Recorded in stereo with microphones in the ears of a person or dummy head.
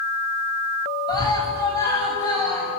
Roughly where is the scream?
Centre.